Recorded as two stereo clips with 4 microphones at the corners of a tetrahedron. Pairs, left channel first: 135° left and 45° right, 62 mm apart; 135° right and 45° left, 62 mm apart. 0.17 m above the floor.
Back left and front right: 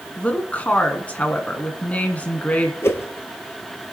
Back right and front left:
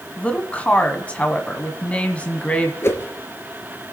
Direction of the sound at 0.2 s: 175° left.